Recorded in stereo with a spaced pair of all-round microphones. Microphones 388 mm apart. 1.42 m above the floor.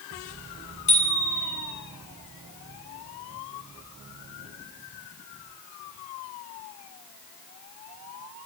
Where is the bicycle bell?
85° left, 9.5 m.